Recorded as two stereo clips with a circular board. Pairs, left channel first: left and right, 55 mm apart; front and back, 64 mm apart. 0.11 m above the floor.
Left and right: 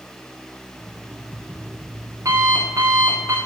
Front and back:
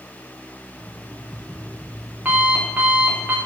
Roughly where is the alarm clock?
Right.